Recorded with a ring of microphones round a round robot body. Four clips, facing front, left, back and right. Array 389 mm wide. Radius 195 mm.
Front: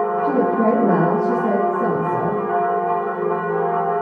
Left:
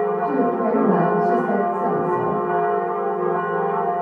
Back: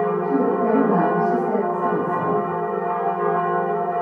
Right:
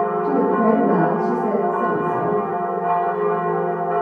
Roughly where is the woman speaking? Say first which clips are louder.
Right 2 dB, front 4 dB; ahead right.